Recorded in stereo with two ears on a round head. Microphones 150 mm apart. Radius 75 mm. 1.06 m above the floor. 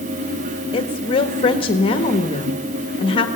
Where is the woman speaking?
35° left (ahead or behind), 1.5 m.